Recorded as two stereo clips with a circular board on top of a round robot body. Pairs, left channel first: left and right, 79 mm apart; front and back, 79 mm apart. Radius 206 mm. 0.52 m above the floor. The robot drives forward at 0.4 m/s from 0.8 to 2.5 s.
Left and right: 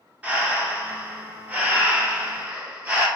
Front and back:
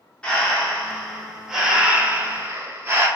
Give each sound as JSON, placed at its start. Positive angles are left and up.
{"t": 0.2, "sound": "breathing", "azimuth_deg": -55, "distance_m": 1.1}